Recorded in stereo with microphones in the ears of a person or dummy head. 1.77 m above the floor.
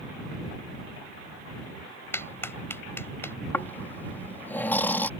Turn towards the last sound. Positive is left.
turn(degrees=10)  # may be behind; listen again after turning